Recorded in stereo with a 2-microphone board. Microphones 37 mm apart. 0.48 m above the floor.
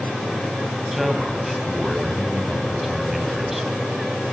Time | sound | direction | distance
0.9 | a man speaking | 5° right (ahead or behind) | 3 m